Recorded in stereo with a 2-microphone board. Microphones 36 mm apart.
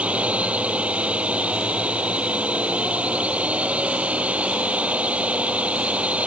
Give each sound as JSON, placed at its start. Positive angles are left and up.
{"t": 0.0, "sound": "a drone", "side_deg": -40}